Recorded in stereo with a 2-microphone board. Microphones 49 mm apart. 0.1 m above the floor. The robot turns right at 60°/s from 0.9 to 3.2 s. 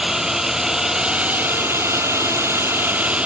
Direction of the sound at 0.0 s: 165° right.